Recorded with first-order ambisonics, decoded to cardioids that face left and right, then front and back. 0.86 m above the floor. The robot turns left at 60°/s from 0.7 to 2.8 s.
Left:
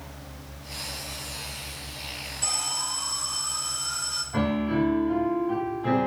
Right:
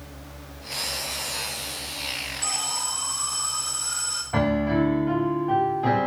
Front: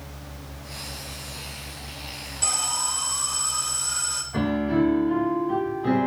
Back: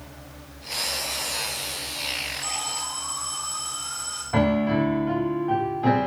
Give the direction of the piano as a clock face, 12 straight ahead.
5 o'clock.